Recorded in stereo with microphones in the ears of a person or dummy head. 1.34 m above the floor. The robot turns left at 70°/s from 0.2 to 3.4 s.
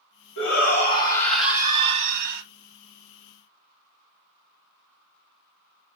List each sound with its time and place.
0.4 s a shout: 75° left, 2 m; by 2.4 s 70° right, 2 m